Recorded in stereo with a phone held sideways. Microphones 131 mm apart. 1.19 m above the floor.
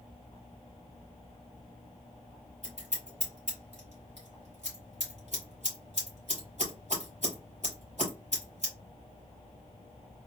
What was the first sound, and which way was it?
Scissors, 65° right (ahead or behind).